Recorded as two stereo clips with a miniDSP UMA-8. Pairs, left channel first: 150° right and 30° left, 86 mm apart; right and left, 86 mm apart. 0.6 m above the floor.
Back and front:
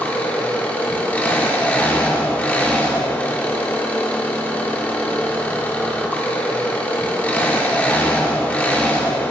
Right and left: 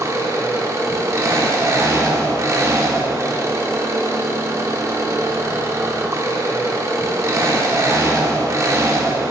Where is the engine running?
140° left, 0.7 m.